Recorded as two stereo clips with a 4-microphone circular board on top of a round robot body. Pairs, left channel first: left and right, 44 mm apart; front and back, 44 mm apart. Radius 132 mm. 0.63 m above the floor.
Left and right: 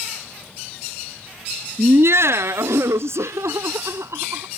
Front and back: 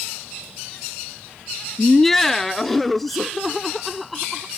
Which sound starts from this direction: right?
Laughter, at 1.8 s.